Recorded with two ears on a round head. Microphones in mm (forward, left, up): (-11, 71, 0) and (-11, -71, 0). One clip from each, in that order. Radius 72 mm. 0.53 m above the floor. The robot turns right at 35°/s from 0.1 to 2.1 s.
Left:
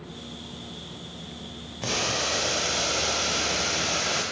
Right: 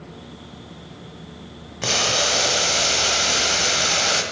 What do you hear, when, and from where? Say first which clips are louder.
1.8 s boiling: right 7 dB; 35° right (ahead or behind), 1.9 m; by 4.2 s 45° right (ahead or behind), 1.9 m